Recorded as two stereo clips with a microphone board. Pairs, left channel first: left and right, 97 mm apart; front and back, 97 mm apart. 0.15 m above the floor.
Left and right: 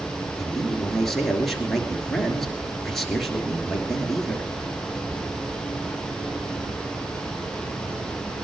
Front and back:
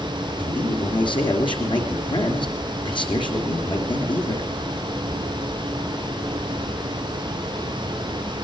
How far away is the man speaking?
About 3 m.